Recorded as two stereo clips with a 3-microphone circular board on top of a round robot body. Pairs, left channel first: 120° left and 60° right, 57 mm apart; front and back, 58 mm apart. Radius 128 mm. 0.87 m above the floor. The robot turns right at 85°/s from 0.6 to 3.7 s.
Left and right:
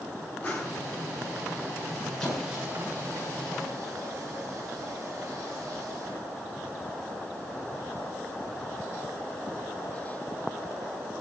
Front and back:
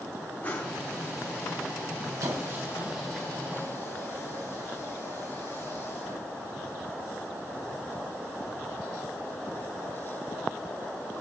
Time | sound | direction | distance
0.4 | a whoosh | 65° left | 1.9 m
2.2 | a squeak | 160° right | 3 m